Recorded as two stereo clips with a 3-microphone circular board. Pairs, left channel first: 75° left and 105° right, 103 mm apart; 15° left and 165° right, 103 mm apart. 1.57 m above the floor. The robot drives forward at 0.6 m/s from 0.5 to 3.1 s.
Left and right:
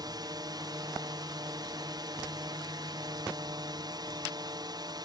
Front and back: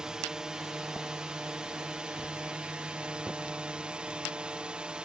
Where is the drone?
85° right; by 5.1 s 90° right.